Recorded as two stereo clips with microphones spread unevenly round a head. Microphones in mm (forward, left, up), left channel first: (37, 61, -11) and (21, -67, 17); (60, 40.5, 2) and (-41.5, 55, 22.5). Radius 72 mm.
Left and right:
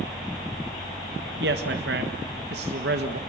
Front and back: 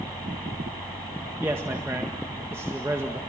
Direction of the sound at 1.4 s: 110° right.